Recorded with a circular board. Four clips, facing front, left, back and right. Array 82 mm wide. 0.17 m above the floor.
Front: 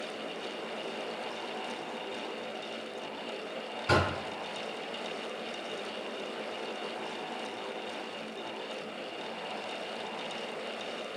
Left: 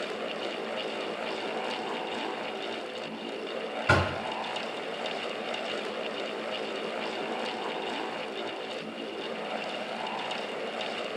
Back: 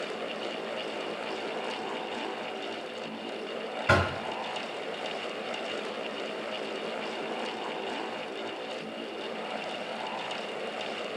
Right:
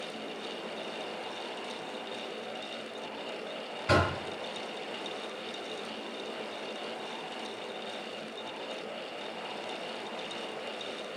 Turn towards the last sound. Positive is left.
turn(degrees=140)